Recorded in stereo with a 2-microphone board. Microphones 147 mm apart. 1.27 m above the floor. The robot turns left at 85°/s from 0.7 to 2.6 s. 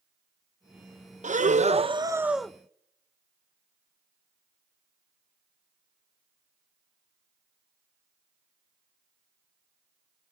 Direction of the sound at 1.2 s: 80° right.